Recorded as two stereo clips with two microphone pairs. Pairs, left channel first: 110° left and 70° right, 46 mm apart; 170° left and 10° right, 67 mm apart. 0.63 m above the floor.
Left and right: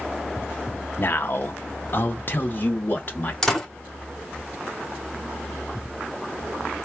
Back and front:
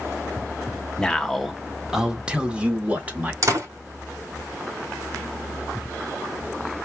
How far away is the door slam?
About 1.6 m.